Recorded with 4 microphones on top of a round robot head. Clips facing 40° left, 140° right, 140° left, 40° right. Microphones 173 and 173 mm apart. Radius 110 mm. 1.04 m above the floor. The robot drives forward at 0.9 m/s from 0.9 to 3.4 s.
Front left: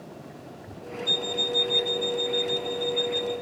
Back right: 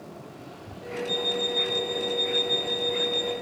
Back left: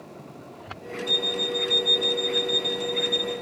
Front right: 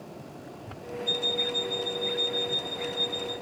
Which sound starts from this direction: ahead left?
An alarm clock, at 1.1 s.